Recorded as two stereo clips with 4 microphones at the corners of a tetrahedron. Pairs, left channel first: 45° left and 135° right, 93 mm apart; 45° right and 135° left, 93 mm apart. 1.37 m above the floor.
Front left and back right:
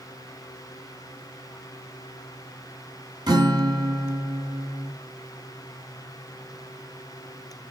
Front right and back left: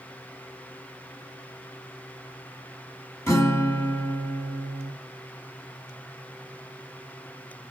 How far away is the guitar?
About 2 m.